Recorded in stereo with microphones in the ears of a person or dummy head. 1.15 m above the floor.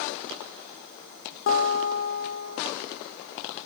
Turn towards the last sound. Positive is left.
turn(degrees=65)  # may be behind; listen again after turning